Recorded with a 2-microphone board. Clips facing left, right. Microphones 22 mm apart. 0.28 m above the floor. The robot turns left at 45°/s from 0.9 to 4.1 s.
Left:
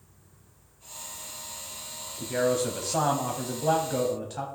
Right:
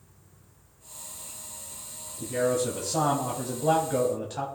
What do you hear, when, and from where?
2.2 s a man speaking: 80° left, 1.3 m; by 4.5 s 5° right, 1.3 m